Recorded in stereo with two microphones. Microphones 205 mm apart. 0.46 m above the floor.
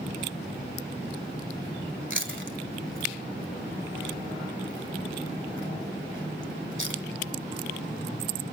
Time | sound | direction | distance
2.1 | chewing | 70° right (ahead or behind) | 1.4 m